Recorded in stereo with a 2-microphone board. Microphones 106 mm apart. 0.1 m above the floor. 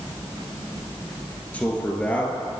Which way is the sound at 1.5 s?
15° left (ahead or behind).